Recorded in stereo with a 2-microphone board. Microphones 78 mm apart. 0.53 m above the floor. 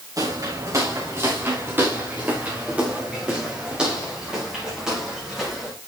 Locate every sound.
0.2 s footsteps: 55° right (ahead or behind), 3 m; by 5.7 s 5° right (ahead or behind), 7 m